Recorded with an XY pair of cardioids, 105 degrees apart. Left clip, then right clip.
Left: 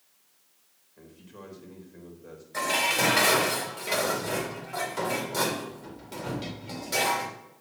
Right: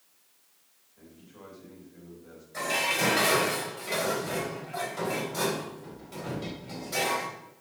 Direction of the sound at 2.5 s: 55° left.